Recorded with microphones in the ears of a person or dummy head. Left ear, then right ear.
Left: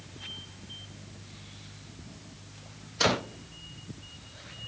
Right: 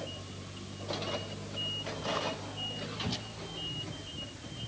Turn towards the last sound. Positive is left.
No sound to turn to.